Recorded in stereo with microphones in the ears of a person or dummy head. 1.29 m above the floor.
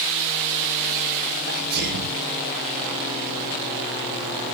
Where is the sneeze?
55° right (ahead or behind), 2.5 m.